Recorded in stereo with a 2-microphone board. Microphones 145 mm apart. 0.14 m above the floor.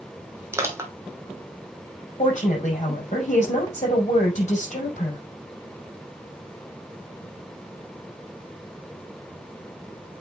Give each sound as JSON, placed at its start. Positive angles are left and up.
{"t": 0.5, "sound": "crushing", "side_deg": -20, "distance_m": 1.4}
{"t": 2.2, "sound": "a woman speaking", "side_deg": 55, "distance_m": 5.5}